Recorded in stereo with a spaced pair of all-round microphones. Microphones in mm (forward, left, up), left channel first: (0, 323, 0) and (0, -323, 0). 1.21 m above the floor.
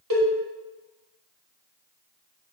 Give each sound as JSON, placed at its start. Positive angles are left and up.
{"t": 0.1, "sound": "a cowbell", "side_deg": -30, "distance_m": 1.1}